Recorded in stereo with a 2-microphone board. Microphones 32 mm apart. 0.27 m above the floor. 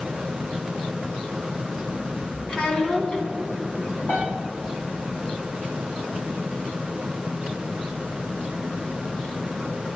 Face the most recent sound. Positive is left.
turn(degrees=75)  # may be behind; listen again after turning